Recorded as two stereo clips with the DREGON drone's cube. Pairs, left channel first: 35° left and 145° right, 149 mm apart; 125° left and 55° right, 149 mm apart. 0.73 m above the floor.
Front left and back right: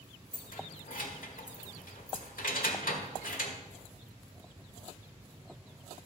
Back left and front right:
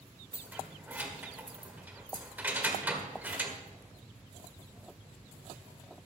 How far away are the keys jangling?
About 1.4 m.